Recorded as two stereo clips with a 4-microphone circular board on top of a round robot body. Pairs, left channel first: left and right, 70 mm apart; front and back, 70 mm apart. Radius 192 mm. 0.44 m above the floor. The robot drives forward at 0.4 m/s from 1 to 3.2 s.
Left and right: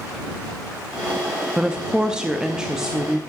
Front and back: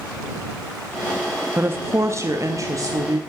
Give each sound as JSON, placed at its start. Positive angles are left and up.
{"t": 1.6, "sound": "a woman speaking", "azimuth_deg": -160, "distance_m": 0.9}